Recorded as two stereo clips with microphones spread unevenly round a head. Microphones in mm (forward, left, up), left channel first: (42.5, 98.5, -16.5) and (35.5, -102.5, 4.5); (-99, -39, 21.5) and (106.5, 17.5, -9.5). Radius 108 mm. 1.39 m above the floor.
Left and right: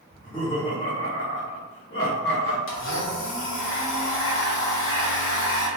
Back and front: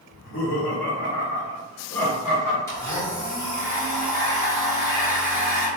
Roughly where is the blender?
Behind left.